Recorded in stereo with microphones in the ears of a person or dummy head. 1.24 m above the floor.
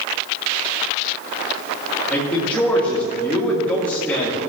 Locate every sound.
2.1 s a man speaking: 5° left (ahead or behind), 2 m